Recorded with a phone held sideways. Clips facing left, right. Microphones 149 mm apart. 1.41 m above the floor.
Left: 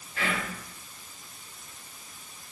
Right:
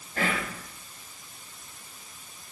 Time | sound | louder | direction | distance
0.2 | whispering | right 2 dB | 45° right (ahead or behind) | 0.7 m